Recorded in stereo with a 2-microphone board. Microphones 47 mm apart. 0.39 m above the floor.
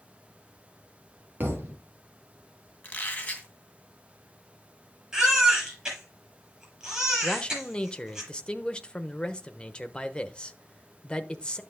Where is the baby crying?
15° right (ahead or behind), 7 m.